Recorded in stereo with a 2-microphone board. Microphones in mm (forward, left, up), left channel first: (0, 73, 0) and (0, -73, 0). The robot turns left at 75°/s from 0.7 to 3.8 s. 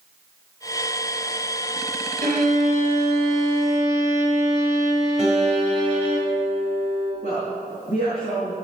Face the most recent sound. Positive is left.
turn(degrees=45)  # may be behind; listen again after turning